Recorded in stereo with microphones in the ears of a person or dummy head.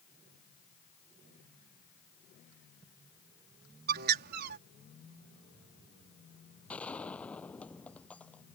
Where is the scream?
No scream in this recording.